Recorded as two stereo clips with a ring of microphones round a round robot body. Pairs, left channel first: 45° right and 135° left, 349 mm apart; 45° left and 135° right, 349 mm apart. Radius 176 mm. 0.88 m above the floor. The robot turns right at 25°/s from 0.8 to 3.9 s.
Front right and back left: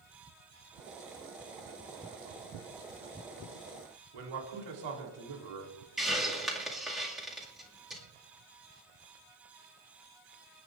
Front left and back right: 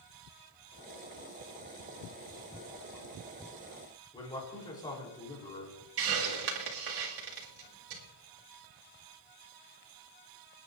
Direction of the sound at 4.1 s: 125° left.